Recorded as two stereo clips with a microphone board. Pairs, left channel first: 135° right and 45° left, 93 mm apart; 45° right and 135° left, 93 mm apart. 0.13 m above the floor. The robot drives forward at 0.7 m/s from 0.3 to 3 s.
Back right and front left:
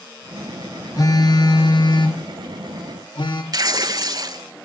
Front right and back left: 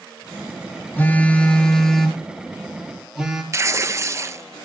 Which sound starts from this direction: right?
A phone buzzing, at 1.0 s.